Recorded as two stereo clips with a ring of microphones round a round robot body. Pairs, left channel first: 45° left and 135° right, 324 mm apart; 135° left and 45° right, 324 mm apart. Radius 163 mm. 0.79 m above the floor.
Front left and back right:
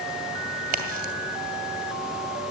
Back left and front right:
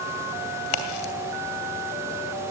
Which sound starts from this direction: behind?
A crack, at 0.7 s.